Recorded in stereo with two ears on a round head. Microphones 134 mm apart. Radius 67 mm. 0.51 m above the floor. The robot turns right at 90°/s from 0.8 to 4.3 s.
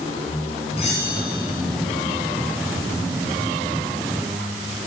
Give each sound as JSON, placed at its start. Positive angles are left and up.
{"t": 0.8, "sound": "a bell", "azimuth_deg": 40, "distance_m": 4.5}